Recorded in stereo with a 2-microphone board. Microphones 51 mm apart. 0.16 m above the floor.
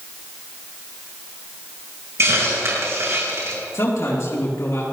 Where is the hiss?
60° right (ahead or behind), 5.5 m.